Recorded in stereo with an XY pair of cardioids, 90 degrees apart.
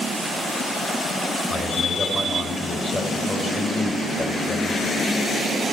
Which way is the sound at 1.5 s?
40° left.